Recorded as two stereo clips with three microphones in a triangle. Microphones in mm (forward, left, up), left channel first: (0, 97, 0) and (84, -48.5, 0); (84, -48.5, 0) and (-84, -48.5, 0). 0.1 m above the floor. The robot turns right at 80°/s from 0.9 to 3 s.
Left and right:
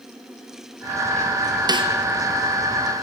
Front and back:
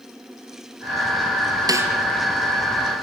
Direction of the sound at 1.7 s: 120° right.